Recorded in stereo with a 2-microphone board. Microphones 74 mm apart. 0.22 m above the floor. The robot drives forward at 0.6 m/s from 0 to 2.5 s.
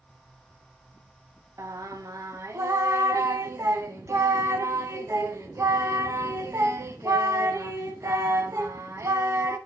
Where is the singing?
45° right (ahead or behind), 0.7 m; by 9.6 s 40° right (ahead or behind), 0.8 m.